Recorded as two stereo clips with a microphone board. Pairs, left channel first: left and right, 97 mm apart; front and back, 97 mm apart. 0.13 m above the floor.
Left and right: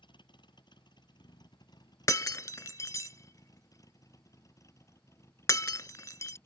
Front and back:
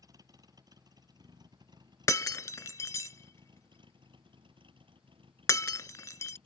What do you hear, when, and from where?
0.0 s a vehicle: 125° left; by 6.5 s 155° left
2.1 s breaking glass: 45° left